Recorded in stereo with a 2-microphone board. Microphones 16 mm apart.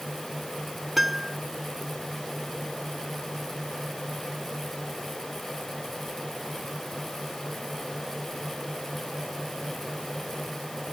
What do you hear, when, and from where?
1.0 s a piano: 10° right (ahead or behind)